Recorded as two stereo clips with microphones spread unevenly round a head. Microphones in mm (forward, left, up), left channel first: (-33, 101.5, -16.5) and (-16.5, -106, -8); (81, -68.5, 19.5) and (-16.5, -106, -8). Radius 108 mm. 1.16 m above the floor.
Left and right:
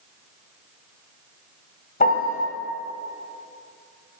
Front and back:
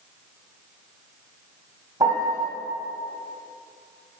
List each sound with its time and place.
2.0 s a piano: 125° left, 1.2 m